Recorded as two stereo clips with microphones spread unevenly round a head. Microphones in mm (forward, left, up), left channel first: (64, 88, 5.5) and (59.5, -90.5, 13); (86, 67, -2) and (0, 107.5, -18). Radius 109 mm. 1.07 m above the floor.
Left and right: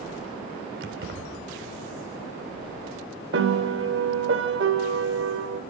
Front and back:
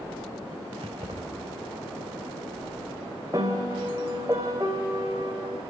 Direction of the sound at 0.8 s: 135° right.